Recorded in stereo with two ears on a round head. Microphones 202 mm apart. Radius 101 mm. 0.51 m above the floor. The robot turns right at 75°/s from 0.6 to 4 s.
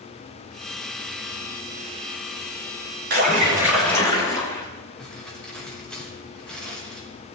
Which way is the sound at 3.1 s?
50° right.